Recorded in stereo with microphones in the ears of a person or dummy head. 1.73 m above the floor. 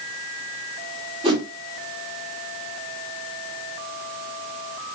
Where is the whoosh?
25° right (ahead or behind), 0.9 m.